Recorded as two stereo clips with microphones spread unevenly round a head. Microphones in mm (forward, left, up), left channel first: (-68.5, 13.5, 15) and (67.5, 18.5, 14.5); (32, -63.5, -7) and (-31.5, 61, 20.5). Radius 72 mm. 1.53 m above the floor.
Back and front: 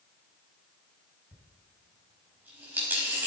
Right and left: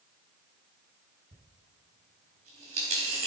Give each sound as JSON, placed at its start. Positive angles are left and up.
{"t": 1.3, "sound": "a dropped coin", "azimuth_deg": 80, "distance_m": 4.0}